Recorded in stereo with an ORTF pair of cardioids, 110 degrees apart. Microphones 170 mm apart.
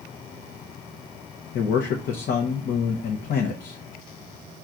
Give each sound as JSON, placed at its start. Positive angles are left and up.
{"t": 1.5, "sound": "a man speaking", "azimuth_deg": 55, "distance_m": 0.6}